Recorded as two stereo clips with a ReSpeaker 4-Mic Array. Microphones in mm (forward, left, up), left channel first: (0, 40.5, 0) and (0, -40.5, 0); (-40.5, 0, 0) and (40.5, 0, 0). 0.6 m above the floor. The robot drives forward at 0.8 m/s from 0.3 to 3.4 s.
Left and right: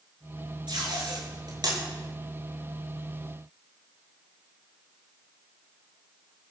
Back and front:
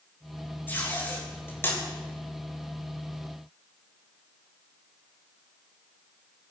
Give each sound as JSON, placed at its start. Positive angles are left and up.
{"t": 0.7, "sound": "tape being pulled", "azimuth_deg": -115, "distance_m": 7.5}